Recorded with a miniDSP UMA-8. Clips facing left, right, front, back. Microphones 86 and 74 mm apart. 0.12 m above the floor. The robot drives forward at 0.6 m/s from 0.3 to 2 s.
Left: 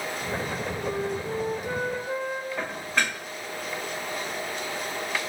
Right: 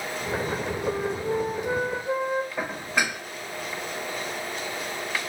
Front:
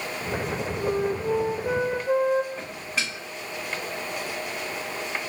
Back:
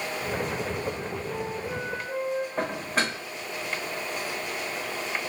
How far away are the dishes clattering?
About 1.2 m.